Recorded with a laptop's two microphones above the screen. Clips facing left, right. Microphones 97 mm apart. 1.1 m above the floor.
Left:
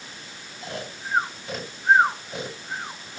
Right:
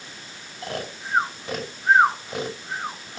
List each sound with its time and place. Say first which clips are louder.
0.6 s snoring: right 3 dB; 65° right (ahead or behind), 5.5 m